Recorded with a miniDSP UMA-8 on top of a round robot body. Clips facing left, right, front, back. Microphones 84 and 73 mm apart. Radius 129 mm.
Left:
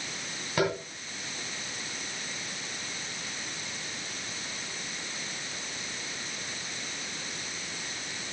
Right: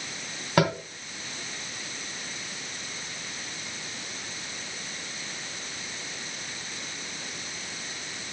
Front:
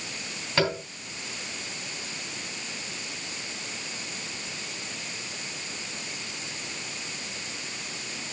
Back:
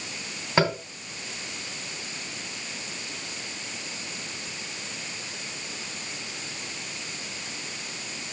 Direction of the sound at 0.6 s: 115° right.